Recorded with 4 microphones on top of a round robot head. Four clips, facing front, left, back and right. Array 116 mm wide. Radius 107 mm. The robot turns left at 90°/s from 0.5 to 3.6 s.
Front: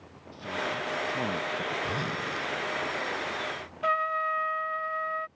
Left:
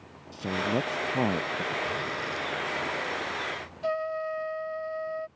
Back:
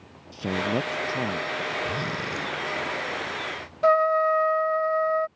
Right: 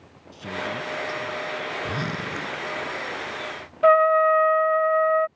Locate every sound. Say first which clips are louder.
0.3 s a man speaking: left 2 dB, back 7 dB; 165° left; by 1.7 s 55° left
1.8 s a zipper: right 3 dB, back 2 dB; 75° right; by 2.6 s 140° right
3.8 s a trumpet: right 14 dB, back 8 dB; 115° right